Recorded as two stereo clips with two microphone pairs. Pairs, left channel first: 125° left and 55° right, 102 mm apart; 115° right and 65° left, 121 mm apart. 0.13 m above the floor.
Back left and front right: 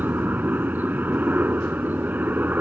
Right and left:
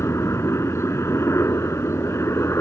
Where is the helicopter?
95° right.